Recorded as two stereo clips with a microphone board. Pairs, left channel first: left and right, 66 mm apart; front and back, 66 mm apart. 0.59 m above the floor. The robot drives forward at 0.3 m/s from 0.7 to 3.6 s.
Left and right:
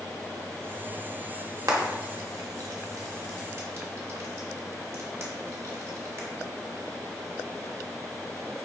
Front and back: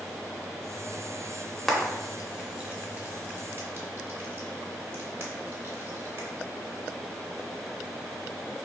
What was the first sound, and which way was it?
Frying, 85° right.